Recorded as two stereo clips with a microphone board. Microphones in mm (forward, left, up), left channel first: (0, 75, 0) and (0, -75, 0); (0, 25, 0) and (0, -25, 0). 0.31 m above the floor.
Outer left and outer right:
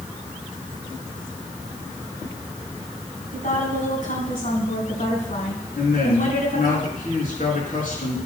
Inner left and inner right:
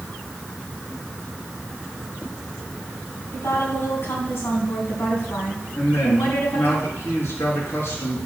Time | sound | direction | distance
3.3 | a woman speaking | 65° left (ahead or behind) | 3 m
5.8 | a man speaking | 70° left (ahead or behind) | 4.5 m